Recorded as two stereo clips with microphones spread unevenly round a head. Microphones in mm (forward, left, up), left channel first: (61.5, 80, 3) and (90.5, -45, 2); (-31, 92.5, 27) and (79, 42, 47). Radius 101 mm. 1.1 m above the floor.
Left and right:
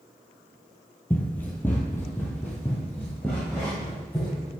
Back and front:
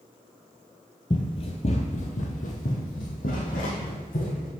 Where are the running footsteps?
160° left, 1.1 m; by 4.5 s 175° right, 3 m.